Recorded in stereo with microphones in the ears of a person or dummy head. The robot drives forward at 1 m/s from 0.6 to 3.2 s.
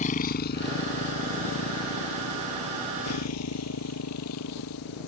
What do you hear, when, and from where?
0.0 s a motorcycle: 35° left (ahead or behind); by 5.1 s 85° left